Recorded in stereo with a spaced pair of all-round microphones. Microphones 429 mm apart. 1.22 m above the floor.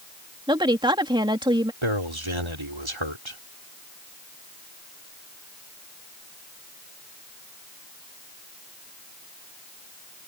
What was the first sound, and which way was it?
A woman speaking, 10° right (ahead or behind).